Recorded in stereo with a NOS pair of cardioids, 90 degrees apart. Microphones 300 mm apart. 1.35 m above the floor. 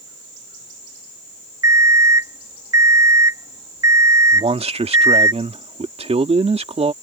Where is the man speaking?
20° right.